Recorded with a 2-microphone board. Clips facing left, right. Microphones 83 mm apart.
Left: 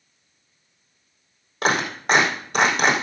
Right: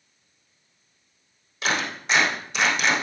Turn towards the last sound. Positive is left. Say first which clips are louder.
# left 5 dB
turn(degrees=50)  # may be behind; listen again after turning